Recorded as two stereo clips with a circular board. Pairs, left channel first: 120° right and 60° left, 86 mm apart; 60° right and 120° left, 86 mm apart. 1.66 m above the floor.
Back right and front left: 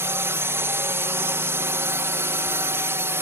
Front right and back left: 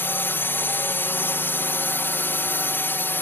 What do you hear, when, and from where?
0.0 s a drone: 5° left